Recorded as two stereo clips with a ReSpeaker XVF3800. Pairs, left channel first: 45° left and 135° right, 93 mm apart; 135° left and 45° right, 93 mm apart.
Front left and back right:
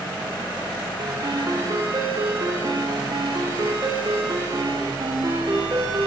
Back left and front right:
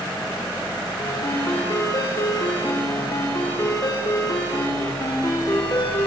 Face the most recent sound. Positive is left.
turn(degrees=180)